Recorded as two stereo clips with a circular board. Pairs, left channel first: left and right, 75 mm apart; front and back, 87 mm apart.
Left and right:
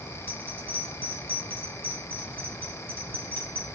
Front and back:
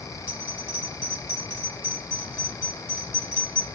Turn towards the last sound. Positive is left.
turn(degrees=135)